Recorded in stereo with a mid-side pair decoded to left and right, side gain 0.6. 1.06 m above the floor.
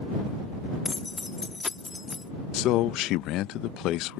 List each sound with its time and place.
0.8 s keys jangling: 20° left
2.5 s a man speaking: 65° left